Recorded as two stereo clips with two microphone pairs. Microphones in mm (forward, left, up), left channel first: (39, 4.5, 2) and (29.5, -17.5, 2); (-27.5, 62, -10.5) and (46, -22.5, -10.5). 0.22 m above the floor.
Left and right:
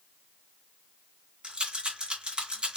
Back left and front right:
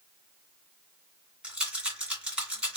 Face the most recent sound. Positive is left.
turn(degrees=-130)